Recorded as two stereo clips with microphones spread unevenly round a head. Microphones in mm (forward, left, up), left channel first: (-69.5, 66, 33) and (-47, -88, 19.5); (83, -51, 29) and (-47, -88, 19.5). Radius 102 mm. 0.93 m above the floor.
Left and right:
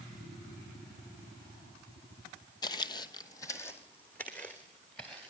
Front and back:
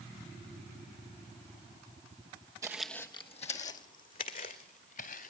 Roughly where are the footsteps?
Behind left.